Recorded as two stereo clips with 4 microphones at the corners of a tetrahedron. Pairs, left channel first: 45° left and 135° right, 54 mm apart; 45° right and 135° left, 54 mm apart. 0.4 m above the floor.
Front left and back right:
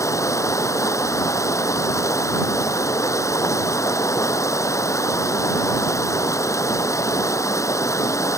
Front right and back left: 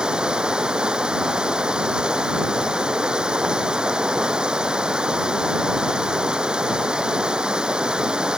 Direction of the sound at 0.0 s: 60° left.